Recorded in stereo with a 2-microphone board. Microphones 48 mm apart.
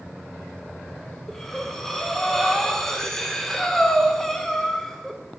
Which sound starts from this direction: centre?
Breathing, at 1.3 s.